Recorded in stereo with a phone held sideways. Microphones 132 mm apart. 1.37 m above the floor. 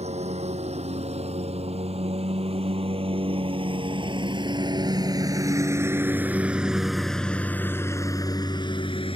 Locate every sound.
0.0 s a lawn mower: 55° right (ahead or behind); by 9.2 s 45° left (ahead or behind)